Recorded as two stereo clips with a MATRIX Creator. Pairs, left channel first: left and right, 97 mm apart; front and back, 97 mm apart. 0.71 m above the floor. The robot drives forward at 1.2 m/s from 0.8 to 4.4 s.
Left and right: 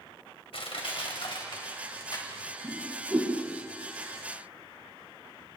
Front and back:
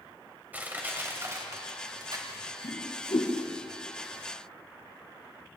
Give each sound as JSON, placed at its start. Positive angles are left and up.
{"t": 0.5, "sound": "crushing", "azimuth_deg": 110, "distance_m": 2.5}
{"t": 2.6, "sound": "a whoosh", "azimuth_deg": -20, "distance_m": 5.5}